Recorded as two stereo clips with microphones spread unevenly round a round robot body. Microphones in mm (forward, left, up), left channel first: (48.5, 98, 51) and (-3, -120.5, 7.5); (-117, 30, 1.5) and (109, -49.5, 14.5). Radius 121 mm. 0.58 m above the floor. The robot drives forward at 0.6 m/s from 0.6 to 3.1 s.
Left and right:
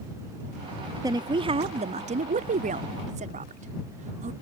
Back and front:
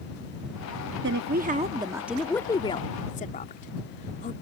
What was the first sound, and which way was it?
A woman speaking, 45° right.